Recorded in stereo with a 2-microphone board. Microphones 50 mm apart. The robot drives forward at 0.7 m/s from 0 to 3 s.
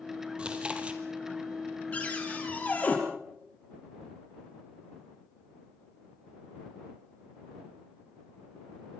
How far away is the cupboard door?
About 5.5 m.